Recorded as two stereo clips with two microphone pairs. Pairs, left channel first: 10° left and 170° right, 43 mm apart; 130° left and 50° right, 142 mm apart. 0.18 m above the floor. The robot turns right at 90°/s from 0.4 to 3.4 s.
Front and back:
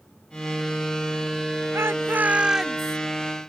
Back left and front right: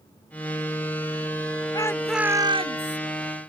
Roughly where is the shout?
Behind.